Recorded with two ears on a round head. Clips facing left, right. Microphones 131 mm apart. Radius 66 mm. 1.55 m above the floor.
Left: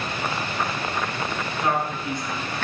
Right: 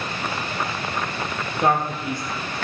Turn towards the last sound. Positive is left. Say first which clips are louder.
# right 4 dB
turn(degrees=-45)  # may be behind; listen again after turning